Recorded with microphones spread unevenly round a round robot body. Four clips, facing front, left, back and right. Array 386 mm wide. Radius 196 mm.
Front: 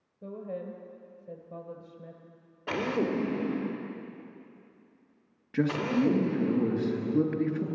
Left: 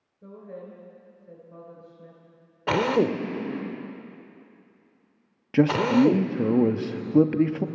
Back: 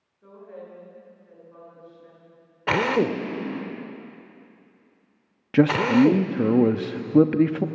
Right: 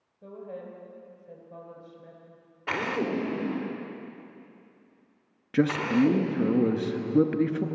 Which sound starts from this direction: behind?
A man speaking, at 5.5 s.